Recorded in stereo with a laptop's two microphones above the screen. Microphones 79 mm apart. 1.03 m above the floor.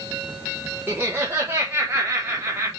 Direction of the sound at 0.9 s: 25° right (ahead or behind).